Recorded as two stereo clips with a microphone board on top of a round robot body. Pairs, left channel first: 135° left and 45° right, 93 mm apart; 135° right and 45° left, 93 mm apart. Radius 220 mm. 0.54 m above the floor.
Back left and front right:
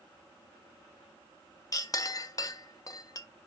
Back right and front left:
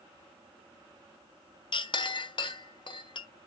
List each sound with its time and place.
1.7 s a clink: 170° right, 0.6 m